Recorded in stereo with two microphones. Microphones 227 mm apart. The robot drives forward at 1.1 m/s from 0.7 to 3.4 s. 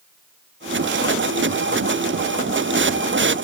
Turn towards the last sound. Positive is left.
No sound to turn to.